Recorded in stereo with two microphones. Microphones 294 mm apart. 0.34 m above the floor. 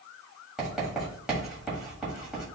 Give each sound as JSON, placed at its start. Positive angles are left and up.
{"t": 0.6, "sound": "writing", "side_deg": 0, "distance_m": 1.7}